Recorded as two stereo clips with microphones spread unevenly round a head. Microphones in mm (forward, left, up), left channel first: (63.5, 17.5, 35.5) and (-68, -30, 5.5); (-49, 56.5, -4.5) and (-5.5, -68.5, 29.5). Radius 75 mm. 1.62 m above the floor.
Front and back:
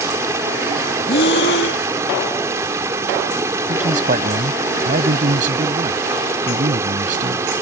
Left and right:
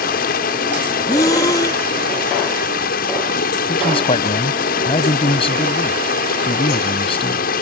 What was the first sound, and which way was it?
Running water, 125° left.